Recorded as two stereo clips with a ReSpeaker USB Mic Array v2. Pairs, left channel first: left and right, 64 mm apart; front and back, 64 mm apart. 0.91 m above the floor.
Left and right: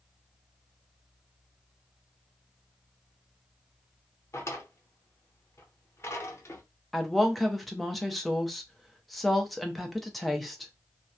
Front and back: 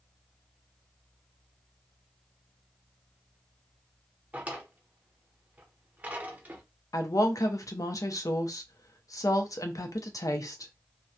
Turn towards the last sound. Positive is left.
turn(degrees=0)